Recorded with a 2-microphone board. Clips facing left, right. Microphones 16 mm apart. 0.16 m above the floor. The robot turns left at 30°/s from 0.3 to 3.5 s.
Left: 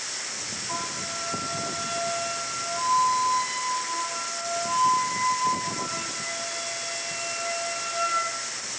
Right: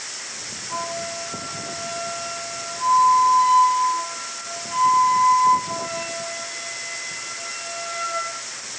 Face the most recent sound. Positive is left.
turn(degrees=-10)